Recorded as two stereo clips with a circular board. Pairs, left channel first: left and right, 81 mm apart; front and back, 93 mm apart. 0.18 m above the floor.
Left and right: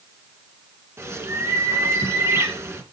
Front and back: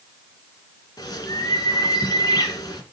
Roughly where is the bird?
Ahead right.